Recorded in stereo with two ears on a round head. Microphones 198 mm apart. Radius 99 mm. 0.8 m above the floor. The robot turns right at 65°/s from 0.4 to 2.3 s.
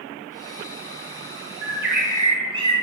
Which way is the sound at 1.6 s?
70° right.